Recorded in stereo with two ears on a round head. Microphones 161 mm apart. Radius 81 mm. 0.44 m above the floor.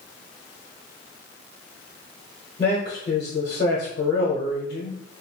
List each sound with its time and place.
2.6 s a man speaking: 40° left (ahead or behind), 1.2 m